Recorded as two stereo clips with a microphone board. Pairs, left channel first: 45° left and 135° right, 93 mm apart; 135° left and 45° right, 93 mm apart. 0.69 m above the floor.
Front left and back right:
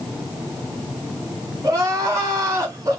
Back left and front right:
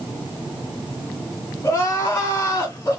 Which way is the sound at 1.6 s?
175° left.